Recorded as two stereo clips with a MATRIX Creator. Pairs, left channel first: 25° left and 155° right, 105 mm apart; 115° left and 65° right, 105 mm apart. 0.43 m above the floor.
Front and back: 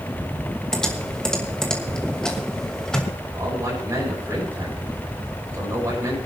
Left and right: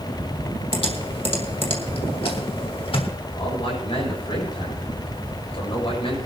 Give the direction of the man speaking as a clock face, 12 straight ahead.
7 o'clock.